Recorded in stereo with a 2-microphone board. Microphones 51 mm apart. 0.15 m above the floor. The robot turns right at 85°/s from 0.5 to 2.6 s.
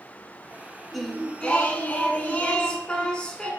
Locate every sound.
0.9 s singing: straight ahead, 0.7 m; by 3.5 s 145° left, 0.7 m